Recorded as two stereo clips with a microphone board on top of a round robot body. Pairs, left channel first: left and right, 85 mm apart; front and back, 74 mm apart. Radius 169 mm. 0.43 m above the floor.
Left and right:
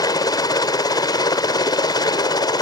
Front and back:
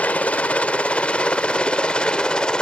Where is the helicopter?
70° left; by 2.6 s 75° left.